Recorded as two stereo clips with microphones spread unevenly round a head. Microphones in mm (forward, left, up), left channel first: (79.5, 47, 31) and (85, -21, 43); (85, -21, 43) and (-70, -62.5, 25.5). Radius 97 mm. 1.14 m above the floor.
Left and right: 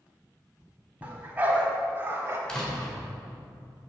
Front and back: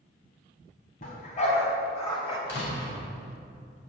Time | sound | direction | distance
1.0 | a dog barking | 20° right | 3 m
2.5 | a door slam | 15° left | 3.5 m